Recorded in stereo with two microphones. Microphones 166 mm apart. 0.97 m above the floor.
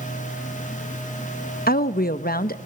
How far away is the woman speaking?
About 0.7 m.